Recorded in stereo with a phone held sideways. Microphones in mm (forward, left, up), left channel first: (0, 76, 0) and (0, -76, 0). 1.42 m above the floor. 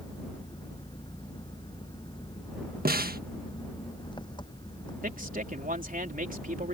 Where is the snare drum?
80° right.